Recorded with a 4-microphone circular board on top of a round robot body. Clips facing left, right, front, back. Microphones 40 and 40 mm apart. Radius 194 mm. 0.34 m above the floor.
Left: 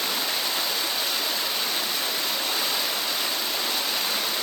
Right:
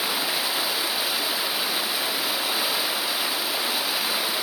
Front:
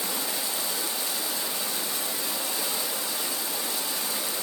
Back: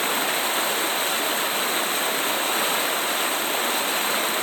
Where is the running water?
170° right, 0.7 m.